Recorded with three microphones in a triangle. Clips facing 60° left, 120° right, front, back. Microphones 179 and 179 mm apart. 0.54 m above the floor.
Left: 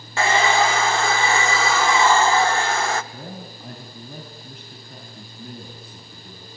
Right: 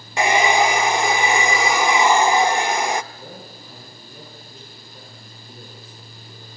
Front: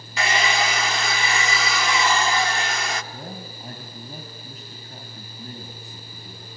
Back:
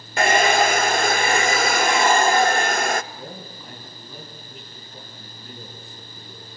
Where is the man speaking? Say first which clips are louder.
Left 2 dB, front 1 dB; 45° left, 4 m.